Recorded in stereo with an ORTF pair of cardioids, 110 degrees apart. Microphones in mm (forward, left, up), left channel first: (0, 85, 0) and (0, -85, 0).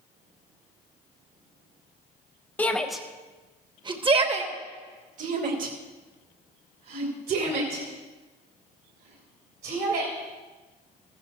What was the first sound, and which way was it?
A shout, 10° left.